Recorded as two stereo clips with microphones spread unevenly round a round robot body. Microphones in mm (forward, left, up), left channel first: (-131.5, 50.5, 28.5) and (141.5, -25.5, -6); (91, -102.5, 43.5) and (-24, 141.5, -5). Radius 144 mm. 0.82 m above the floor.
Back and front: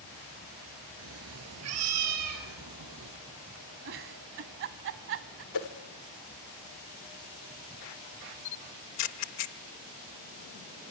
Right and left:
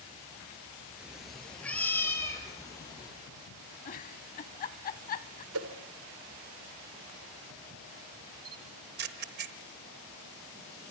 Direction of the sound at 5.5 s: 150° left.